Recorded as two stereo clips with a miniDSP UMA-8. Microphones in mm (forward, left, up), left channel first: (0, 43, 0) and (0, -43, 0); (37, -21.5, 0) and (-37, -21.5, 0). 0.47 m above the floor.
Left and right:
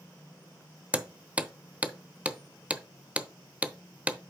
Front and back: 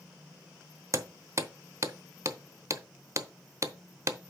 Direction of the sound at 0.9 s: 155° right.